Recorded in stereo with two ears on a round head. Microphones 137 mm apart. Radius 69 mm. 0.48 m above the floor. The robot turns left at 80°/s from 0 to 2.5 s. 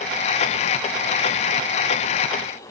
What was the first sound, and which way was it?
Only background noise.